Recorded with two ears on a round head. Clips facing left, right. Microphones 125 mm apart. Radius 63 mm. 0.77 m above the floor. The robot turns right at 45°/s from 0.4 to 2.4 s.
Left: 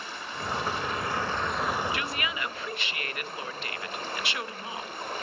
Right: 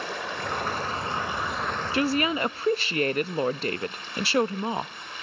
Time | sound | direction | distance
0.0 | running water | 55° right | 2.5 m
1.9 | a woman speaking | 30° right (ahead or behind) | 0.5 m